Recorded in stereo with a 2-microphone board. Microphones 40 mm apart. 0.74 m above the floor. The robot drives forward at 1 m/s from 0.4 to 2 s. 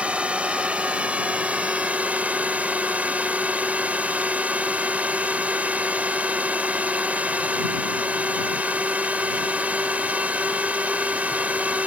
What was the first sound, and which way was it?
A drone, 30° right (ahead or behind).